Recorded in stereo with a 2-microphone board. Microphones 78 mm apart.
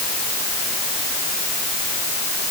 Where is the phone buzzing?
I don't hear a phone buzzing.